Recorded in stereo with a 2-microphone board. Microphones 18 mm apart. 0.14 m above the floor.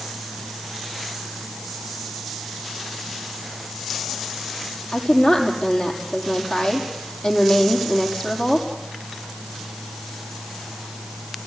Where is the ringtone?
I don't hear a ringtone.